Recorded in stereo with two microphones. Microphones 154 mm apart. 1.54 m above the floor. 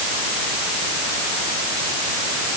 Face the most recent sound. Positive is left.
No sound to turn to.